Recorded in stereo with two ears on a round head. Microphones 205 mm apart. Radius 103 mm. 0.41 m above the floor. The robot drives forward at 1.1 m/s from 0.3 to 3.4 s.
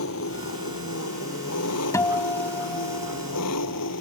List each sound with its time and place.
0.0 s an engine running: 65° left (ahead or behind); by 4.0 s 80° left
1.9 s a guitar: 15° left (ahead or behind); by 3.9 s 10° left (ahead or behind)